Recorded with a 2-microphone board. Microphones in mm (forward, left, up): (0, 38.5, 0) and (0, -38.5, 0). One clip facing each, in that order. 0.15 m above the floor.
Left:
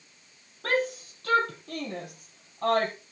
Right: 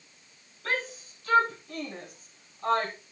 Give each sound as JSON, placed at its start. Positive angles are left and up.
{"t": 0.6, "sound": "a shout", "side_deg": 60, "distance_m": 4.5}